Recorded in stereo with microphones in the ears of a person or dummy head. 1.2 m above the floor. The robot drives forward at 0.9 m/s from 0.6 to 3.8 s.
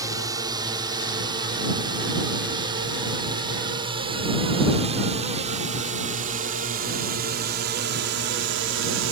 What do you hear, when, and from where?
0.0 s a drone: 20° right (ahead or behind); by 9.1 s 65° right (ahead or behind)